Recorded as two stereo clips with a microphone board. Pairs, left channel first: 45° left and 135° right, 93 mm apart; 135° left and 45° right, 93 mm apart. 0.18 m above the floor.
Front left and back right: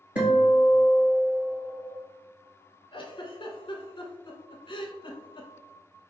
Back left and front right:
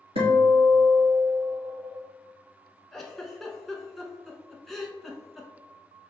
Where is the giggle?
50° left, 0.5 m.